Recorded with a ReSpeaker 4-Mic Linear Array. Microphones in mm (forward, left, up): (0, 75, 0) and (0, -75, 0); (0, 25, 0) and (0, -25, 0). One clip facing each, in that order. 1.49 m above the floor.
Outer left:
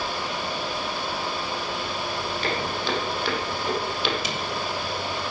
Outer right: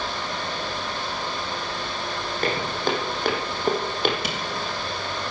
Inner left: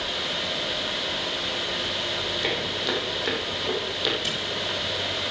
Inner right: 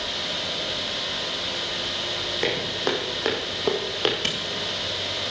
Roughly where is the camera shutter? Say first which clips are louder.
Outer right 1 dB, inner right 2 dB; right.